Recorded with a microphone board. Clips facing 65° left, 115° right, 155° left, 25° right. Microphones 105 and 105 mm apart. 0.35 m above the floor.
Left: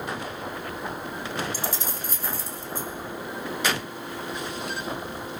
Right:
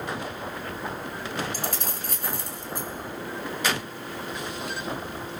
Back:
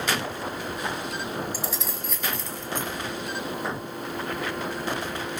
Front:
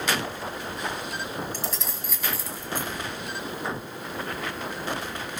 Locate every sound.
1.5 s keys jangling: 115° right, 2 m; by 2.9 s 100° right, 2.5 m